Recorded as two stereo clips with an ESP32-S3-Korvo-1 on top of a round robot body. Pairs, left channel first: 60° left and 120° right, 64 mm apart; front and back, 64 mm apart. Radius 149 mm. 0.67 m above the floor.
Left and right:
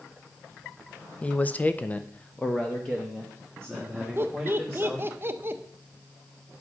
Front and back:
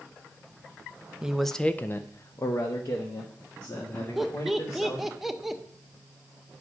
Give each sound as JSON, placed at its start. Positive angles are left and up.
{"t": 1.2, "sound": "a man speaking", "azimuth_deg": 115, "distance_m": 0.7}
{"t": 4.2, "sound": "laughter", "azimuth_deg": -95, "distance_m": 0.9}